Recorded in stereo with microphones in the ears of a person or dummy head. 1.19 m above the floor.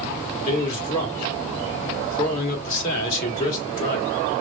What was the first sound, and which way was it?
A man speaking, 45° left (ahead or behind).